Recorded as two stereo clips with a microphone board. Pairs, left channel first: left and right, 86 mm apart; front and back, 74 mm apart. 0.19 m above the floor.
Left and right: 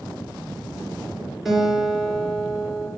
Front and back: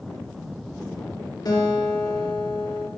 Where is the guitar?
5° right, 3 m.